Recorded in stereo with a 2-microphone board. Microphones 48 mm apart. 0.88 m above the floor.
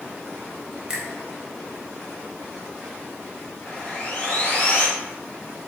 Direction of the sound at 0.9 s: 15° right (ahead or behind).